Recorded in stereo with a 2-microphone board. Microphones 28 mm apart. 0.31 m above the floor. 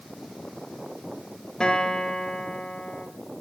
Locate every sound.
1.6 s a guitar: 25° left (ahead or behind), 1.6 m